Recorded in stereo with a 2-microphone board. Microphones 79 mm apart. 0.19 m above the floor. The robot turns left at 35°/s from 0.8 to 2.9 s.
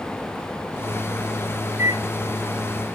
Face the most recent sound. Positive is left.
turn(degrees=-5)  # may be behind; listen again after turning